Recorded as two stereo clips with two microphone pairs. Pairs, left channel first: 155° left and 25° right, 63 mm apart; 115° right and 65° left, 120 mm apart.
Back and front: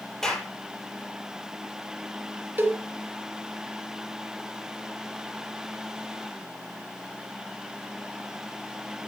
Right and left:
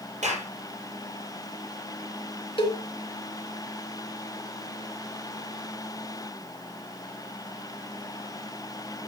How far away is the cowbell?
About 3 m.